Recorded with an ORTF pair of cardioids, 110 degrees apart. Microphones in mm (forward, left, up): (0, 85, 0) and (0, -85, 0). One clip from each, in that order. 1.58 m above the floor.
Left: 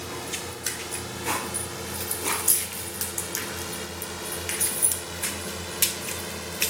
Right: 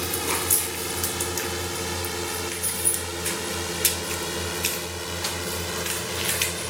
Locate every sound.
0.0 s a drone: 45° right; by 6.7 s 25° right